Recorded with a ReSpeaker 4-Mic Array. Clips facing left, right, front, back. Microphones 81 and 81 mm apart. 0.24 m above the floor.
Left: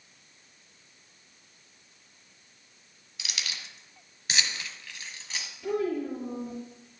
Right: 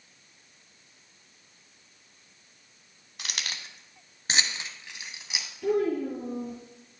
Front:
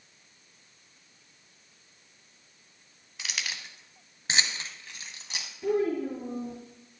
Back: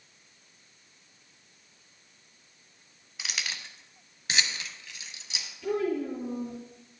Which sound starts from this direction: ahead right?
A child speaking, at 5.6 s.